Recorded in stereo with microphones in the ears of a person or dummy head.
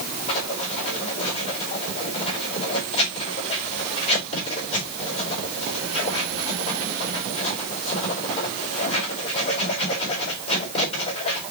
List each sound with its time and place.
0.3 s writing: 25° left (ahead or behind), 4 m